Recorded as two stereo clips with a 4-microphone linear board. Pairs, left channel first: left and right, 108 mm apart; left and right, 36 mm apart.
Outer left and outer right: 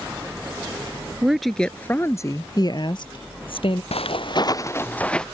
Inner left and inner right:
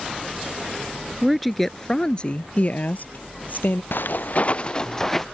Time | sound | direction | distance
1.2 | a woman speaking | 10° right (ahead or behind) | ?
3.9 | footsteps | 70° left (ahead or behind) | ?